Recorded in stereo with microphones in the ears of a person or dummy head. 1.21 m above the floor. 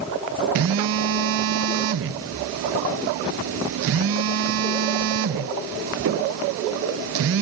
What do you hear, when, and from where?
0.6 s a phone buzzing: 70° right (ahead or behind), 0.6 m